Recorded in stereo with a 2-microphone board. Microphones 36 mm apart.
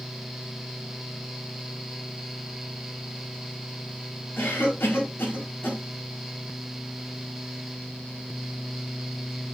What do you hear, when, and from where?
4.4 s a cough: 80° left, 4 m